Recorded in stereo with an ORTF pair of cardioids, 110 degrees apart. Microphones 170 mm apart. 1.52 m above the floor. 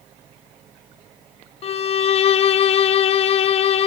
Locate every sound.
1.6 s a violin: 40° left, 0.5 m